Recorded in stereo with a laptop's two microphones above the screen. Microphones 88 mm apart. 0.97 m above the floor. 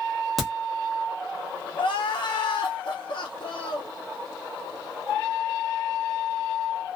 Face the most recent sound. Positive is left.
turn(degrees=65)  # may be behind; listen again after turning